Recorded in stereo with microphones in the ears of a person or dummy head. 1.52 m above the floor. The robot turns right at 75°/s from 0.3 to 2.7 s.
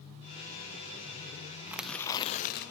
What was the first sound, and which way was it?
Tearing paper, 10° right.